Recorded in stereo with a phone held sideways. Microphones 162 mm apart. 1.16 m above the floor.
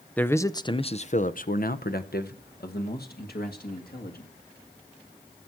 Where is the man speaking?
10° left (ahead or behind), 0.8 m; by 4.3 s 65° left (ahead or behind), 2.0 m.